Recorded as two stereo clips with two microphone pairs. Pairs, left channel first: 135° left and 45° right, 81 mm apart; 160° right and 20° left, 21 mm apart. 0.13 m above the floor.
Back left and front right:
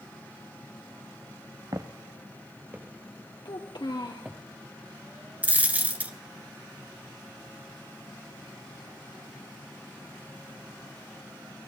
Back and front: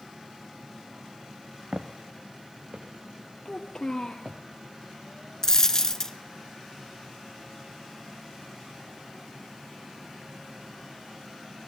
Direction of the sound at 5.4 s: 110° right.